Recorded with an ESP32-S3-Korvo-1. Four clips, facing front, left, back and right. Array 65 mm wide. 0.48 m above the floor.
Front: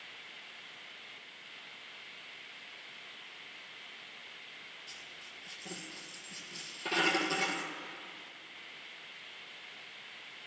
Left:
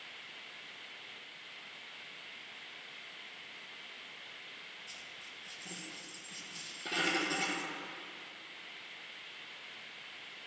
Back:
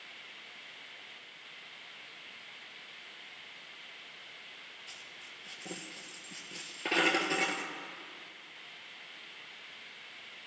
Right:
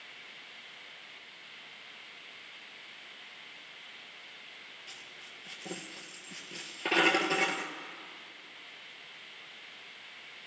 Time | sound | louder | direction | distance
4.9 | a dropped coin | right 1 dB, even | 120° right | 1.8 m